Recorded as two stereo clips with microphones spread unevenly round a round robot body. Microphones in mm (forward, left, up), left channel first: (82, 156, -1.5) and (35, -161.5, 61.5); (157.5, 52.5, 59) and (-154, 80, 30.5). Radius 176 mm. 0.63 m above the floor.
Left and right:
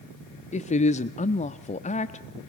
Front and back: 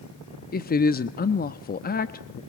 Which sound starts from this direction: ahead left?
A woman speaking, at 0.5 s.